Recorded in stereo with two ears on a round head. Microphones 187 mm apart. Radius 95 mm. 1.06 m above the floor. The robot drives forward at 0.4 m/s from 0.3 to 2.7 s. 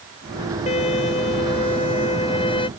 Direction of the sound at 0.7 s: 35° left (ahead or behind).